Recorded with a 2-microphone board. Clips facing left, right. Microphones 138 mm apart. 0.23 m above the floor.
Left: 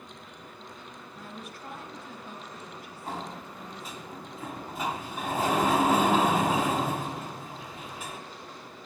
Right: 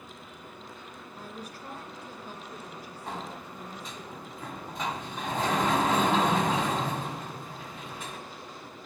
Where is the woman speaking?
40° right (ahead or behind), 3.5 m.